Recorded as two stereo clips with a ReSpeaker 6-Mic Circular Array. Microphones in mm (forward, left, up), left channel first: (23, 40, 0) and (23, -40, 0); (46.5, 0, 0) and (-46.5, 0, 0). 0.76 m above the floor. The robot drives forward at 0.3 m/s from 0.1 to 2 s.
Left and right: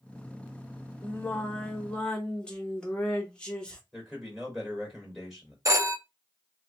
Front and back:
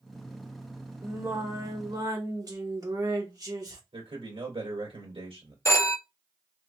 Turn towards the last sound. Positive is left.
turn(degrees=-50)